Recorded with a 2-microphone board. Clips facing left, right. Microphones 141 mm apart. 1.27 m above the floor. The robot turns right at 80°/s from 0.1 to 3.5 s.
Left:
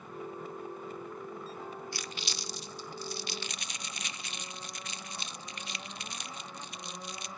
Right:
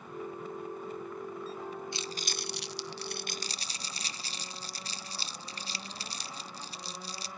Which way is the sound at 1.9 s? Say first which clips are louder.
Right 3 dB; 20° right (ahead or behind).